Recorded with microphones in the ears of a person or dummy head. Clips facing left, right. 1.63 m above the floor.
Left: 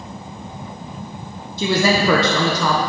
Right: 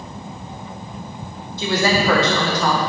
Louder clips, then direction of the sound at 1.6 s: Left 2 dB; 70° left (ahead or behind).